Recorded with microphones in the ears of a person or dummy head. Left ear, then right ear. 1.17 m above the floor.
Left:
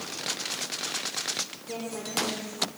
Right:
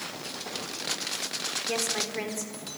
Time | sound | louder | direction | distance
1.7 | a woman speaking | right 5 dB | 65° right (ahead or behind) | 4 m